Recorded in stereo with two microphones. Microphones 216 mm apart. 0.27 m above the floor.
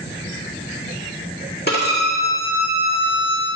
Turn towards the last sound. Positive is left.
turn(degrees=50)  # may be behind; listen again after turning